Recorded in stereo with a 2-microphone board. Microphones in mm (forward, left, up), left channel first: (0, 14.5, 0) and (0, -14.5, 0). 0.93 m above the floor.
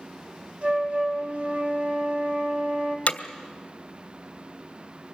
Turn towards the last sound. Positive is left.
turn(degrees=65)  # may be behind; listen again after turning